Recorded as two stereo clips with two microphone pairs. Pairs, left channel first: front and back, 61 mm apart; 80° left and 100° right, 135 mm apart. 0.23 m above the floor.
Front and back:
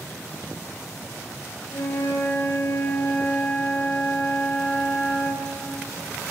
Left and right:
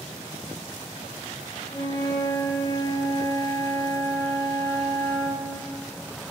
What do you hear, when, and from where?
1.7 s a flute: 20° left, 1.8 m